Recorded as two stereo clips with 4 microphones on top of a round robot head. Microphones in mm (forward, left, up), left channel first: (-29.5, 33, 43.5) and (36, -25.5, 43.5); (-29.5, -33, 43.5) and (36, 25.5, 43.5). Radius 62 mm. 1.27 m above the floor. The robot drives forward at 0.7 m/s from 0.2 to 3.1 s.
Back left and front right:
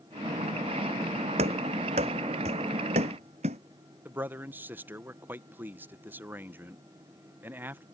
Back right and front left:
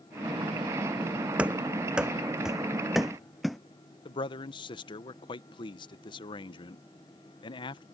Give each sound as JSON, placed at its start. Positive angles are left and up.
{"t": 1.4, "sound": "running footsteps", "azimuth_deg": -35}
{"t": 4.0, "sound": "a man speaking", "azimuth_deg": -110}